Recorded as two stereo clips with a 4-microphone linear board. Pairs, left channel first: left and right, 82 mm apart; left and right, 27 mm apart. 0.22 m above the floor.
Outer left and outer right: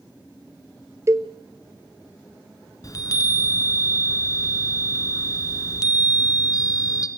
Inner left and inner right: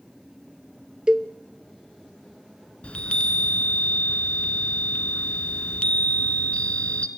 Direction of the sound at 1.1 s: 35° right (ahead or behind).